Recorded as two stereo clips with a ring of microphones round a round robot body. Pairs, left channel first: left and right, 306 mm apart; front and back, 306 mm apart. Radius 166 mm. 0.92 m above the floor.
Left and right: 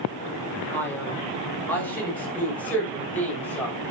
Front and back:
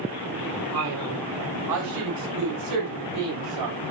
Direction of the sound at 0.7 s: 175° left.